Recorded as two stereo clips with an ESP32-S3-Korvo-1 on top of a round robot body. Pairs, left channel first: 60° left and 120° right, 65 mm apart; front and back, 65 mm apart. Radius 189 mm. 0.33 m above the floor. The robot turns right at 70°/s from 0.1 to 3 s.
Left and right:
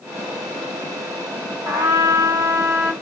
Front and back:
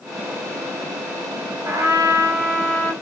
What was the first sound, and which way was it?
A trumpet, 150° right.